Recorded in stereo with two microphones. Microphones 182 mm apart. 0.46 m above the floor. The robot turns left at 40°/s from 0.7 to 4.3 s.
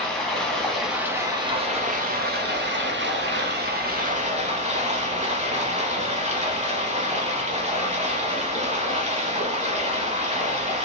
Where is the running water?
5° left, 0.9 m; by 10.8 s 140° right, 0.9 m.